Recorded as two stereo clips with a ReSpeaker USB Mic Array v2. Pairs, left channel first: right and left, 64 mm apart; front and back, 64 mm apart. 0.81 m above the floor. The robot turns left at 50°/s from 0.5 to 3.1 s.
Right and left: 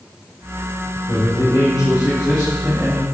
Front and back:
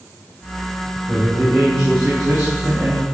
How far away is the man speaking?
About 4 m.